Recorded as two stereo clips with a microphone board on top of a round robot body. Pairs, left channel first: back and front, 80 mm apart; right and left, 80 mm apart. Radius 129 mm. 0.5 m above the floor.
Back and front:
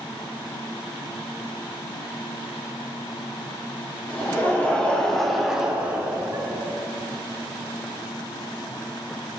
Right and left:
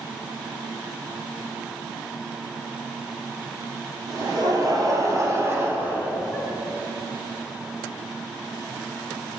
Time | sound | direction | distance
4.1 | laughter | 120° left | 2 m